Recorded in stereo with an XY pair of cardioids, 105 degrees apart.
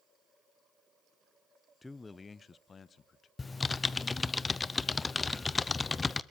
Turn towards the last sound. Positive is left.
turn(degrees=25)